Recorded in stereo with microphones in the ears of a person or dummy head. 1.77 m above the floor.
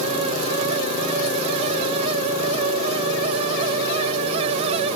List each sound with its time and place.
Only background noise.